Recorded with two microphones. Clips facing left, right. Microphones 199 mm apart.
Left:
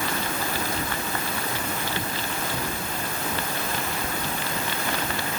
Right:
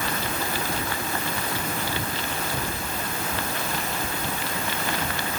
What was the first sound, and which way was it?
Only background noise.